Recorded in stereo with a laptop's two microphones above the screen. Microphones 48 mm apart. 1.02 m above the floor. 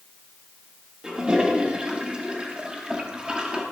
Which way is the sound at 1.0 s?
15° right (ahead or behind).